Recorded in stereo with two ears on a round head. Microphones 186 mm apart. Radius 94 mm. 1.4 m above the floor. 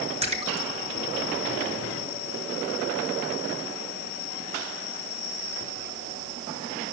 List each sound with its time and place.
0.2 s a splash: 30° right (ahead or behind), 1.9 m